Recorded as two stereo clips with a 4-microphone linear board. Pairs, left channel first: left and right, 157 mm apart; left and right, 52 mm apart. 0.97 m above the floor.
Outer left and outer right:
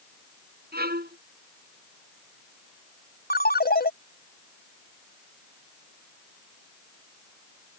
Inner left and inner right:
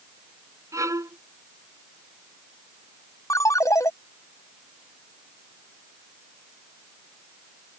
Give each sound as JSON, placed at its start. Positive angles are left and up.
{"t": 0.7, "sound": "a violin", "side_deg": -75}
{"t": 3.3, "sound": "a ringtone", "side_deg": 80}